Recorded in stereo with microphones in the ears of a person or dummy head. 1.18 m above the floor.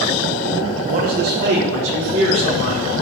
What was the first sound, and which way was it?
A man speaking, 35° right (ahead or behind).